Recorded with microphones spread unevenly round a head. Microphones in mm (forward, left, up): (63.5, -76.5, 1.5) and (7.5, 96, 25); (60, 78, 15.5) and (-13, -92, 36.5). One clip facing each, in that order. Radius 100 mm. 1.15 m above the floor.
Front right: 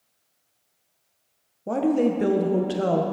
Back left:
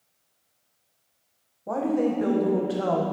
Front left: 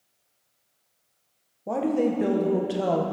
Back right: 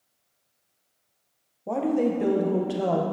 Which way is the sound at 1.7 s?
20° right.